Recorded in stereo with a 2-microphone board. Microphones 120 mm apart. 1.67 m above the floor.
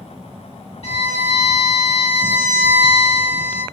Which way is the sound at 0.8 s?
60° left (ahead or behind).